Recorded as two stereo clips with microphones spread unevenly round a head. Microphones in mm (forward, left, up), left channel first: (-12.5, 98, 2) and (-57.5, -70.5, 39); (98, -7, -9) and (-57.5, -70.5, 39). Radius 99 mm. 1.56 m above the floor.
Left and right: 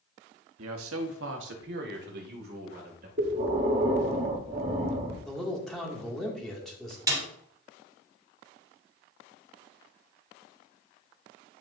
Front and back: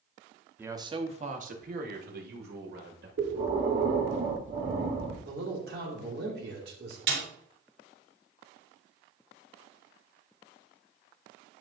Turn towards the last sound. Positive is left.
turn(degrees=-175)